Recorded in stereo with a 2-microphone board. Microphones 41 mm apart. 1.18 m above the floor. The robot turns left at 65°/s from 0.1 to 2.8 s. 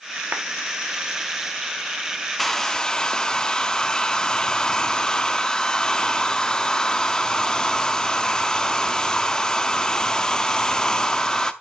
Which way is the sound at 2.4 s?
5° left (ahead or behind).